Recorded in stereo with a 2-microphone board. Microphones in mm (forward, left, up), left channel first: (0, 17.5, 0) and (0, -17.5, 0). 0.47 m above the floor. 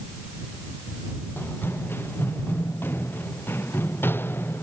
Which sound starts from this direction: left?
Running footsteps, at 1.4 s.